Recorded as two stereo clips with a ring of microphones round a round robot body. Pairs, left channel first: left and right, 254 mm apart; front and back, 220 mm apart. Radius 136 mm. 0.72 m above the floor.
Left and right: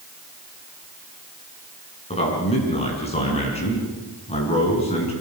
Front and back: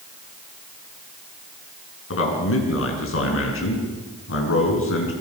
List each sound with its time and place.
2.1 s a man speaking: 25° left, 6.5 m